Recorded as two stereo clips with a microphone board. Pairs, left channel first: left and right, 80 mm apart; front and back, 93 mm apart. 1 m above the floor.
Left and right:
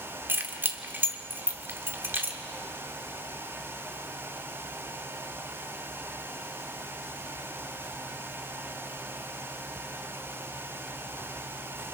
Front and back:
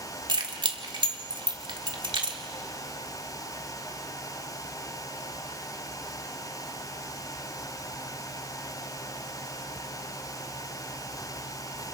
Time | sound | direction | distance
0.3 | keys jangling | 150° right | 1.5 m